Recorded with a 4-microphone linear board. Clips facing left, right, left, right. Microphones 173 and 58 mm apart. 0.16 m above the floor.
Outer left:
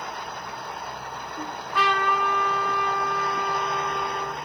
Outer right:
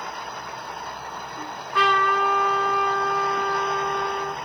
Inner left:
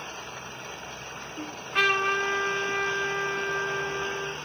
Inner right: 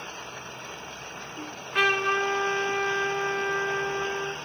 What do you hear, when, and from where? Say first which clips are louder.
1.4 s a trumpet: outer right 2 dB, even; centre (ahead or behind), 1.5 m